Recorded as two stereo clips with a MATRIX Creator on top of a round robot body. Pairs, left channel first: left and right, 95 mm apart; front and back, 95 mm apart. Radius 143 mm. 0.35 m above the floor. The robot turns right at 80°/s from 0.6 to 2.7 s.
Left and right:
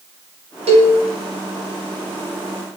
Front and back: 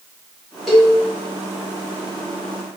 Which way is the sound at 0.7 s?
90° right.